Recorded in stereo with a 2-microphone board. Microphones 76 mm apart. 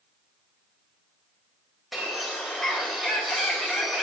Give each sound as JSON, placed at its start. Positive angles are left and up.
{"t": 1.9, "sound": "a bird", "side_deg": 0, "distance_m": 3.0}